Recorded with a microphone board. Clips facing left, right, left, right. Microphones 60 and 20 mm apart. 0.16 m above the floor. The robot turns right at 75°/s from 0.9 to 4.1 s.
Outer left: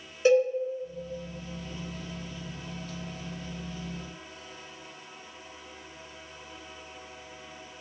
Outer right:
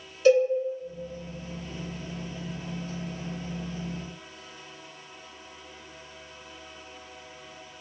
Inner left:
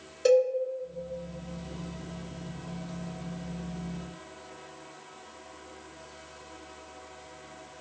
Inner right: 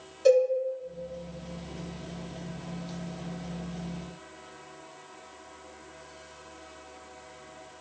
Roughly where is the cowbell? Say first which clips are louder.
Outer right 2 dB, inner right 1 dB; left.